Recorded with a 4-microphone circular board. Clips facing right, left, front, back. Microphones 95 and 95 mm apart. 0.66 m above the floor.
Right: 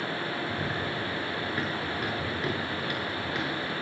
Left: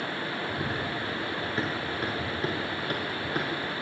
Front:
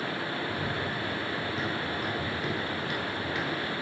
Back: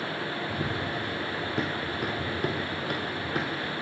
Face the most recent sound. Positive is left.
turn(degrees=135)